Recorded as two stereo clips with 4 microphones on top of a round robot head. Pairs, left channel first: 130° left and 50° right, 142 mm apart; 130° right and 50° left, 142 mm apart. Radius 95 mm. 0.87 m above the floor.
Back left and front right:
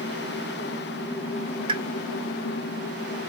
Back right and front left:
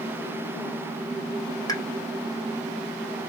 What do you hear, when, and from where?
1.7 s a pop: 80° right, 1.1 m